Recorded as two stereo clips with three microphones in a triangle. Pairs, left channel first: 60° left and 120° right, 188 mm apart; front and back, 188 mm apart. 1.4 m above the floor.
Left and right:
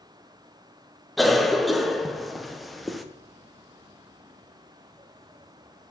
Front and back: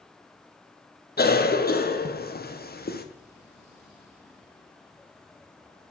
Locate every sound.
1.2 s a cough: 30° right, 0.8 m